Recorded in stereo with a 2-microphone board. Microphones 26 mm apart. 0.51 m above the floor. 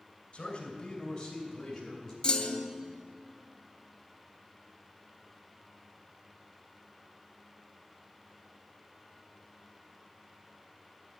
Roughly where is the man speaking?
Left.